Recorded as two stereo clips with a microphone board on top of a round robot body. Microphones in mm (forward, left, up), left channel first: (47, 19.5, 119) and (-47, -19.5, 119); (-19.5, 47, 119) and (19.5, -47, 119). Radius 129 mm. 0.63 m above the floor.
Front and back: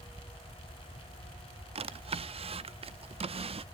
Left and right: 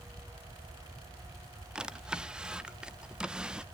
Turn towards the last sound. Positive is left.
turn(degrees=-150)